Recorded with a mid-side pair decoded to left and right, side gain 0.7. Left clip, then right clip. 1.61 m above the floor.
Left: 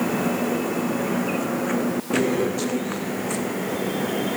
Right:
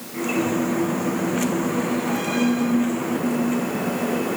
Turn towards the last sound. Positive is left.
No sound to turn to.